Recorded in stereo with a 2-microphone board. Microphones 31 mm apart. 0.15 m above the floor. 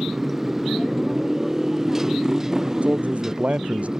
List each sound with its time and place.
0.0 s a motorcycle: 5° right (ahead or behind); by 4.0 s 15° right (ahead or behind)
2.8 s a man speaking: 50° right (ahead or behind)